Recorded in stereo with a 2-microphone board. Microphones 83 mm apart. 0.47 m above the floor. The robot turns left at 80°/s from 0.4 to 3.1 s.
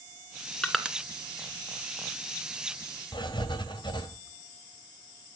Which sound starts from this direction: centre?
Crushing, at 0.6 s.